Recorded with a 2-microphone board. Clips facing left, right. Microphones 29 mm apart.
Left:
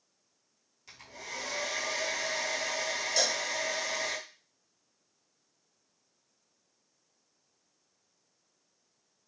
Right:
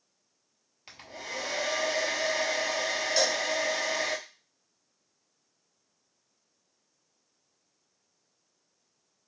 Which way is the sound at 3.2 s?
20° right (ahead or behind).